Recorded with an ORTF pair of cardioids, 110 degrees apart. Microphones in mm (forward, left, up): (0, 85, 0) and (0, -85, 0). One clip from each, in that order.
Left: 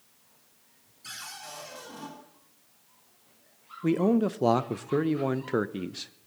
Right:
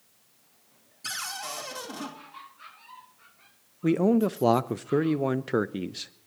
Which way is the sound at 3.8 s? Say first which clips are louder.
Right 2 dB; 10° right.